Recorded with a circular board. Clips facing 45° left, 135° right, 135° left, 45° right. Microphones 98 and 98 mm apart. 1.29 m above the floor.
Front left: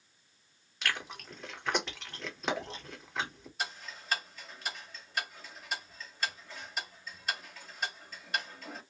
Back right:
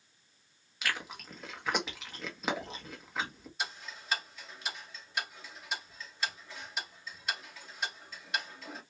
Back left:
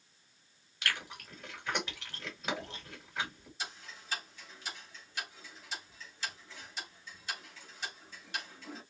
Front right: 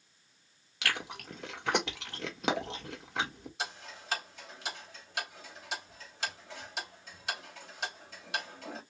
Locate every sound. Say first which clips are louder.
0.8 s chewing: even, front right 3 dB; 50° right, 1.4 m
3.6 s ticking: even, front right 4 dB; 40° right, 3.5 m